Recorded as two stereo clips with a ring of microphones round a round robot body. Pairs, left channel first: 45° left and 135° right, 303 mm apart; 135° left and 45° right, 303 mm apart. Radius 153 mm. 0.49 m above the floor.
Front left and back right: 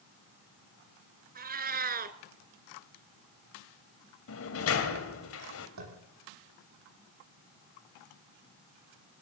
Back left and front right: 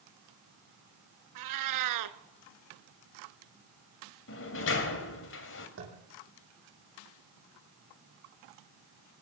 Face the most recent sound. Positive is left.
turn(degrees=-95)